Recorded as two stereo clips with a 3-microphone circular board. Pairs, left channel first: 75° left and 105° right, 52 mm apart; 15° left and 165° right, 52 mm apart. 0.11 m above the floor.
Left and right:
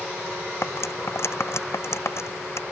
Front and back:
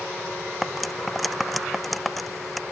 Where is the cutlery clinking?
105° left.